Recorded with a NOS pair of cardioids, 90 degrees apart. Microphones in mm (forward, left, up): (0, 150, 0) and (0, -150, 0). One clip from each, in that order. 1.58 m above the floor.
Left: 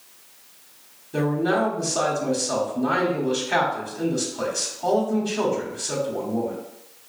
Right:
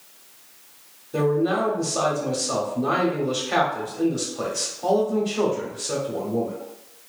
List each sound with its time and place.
1.1 s a man speaking: straight ahead, 1.0 m